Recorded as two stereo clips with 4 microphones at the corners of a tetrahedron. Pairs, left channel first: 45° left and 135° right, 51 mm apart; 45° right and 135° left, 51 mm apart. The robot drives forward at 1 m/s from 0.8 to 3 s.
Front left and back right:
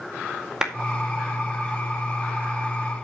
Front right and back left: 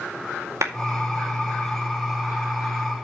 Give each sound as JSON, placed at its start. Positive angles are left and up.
{"t": 0.6, "sound": "a clap", "azimuth_deg": 145, "distance_m": 2.0}